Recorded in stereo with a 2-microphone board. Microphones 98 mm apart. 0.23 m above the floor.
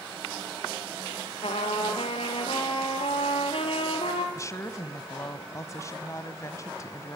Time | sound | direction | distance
1.4 | a trumpet | 70° left (ahead or behind) | 3.5 m
4.3 | a woman speaking | 30° left (ahead or behind) | 1.6 m